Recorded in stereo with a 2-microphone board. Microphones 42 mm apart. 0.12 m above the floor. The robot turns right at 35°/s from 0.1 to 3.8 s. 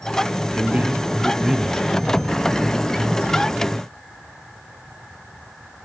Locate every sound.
0.5 s a man speaking: 55° right, 2.5 m; by 2.3 s 10° left, 2.5 m